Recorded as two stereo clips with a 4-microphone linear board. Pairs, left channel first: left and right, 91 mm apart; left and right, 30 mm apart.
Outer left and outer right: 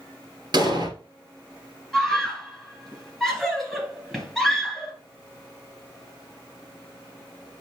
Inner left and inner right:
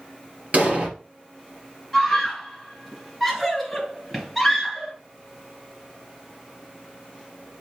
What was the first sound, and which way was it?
An explosion, 50° right (ahead or behind).